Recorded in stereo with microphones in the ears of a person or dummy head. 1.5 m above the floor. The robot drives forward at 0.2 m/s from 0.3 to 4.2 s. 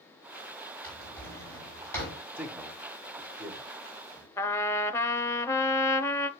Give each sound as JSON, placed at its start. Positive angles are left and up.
{"t": 0.8, "sound": "a drawer", "side_deg": 15, "distance_m": 6.0}
{"t": 2.4, "sound": "a man speaking", "side_deg": -5, "distance_m": 1.0}
{"t": 4.4, "sound": "a trumpet", "side_deg": 10, "distance_m": 0.5}